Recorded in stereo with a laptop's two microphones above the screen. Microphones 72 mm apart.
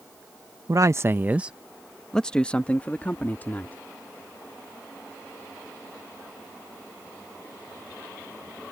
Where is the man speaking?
50° right (ahead or behind); by 3.8 s 30° left (ahead or behind).